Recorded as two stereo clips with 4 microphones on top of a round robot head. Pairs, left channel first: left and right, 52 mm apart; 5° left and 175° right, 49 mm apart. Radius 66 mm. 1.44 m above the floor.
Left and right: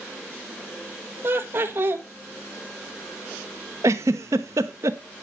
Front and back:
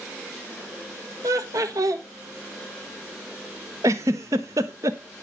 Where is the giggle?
130° right, 0.7 m.